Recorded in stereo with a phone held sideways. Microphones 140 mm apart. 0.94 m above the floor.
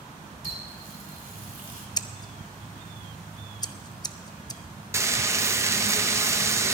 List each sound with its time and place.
0.4 s a running tap: 75° right (ahead or behind), 2 m
2.0 s scissors: 25° left (ahead or behind), 0.5 m
4.9 s frying: 20° right (ahead or behind), 0.8 m